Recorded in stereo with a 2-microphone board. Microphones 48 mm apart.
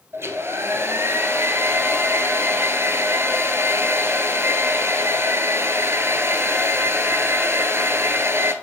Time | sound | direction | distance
0.1 | a hair dryer | 65° right (ahead or behind) | 0.6 m